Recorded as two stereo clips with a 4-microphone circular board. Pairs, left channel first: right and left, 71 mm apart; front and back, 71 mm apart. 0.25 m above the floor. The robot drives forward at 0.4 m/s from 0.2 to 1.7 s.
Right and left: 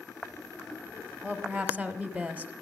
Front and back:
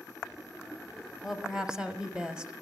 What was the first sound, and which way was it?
A woman speaking, 95° left.